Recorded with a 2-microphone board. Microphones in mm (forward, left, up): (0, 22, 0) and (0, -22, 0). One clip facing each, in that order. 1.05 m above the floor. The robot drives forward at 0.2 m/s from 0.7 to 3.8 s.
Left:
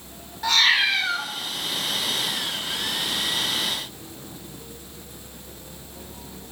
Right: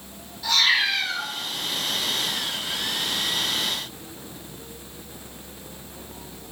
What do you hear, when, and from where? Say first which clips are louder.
0.4 s a cat meowing: left 2 dB; 55° left (ahead or behind), 1.0 m; by 1.3 s 50° left (ahead or behind), 1.0 m